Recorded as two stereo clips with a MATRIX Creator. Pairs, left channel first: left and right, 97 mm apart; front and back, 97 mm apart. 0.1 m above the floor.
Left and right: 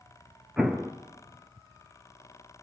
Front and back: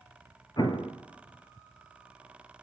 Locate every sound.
0.6 s an explosion: 10° right, 1.3 m